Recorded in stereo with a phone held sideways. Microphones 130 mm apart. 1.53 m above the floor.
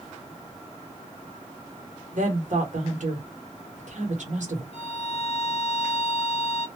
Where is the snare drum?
I don't hear a snare drum.